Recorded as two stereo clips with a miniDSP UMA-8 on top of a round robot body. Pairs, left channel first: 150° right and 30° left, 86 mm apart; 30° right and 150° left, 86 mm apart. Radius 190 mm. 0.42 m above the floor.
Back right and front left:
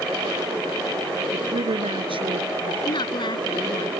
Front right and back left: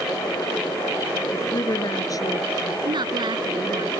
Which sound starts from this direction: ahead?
A woman speaking, at 1.3 s.